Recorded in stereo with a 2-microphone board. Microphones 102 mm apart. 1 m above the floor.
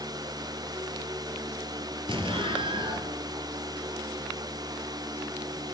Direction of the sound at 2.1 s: 55° right (ahead or behind).